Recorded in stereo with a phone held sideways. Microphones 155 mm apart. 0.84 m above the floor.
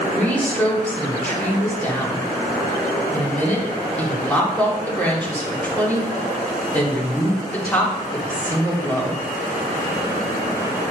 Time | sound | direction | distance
0.1 | a woman speaking | 10° left (ahead or behind) | 2 m